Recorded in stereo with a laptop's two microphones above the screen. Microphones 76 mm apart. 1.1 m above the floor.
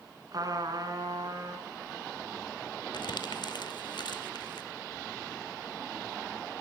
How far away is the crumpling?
About 2 m.